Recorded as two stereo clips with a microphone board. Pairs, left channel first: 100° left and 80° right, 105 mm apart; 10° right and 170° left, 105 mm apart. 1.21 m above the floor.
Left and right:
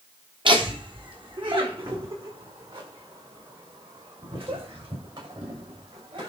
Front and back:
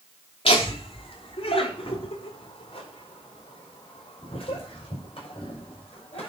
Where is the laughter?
40° right, 3.5 m.